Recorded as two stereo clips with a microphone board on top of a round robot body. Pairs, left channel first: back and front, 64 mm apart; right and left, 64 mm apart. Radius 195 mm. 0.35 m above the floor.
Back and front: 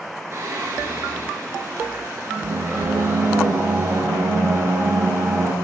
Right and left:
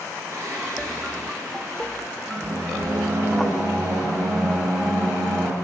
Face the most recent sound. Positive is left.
turn(degrees=45)